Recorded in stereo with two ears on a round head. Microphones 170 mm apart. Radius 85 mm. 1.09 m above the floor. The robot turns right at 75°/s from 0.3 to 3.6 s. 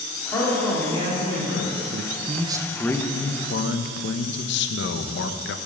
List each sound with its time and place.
0.3 s a man speaking: 165° left, 3 m; by 1.7 s 90° right, 3 m
1.9 s a man speaking: 65° right, 0.6 m; by 5.6 s 60° left, 0.6 m